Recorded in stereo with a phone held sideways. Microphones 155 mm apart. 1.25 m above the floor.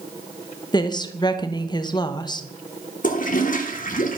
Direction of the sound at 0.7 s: 30° left (ahead or behind).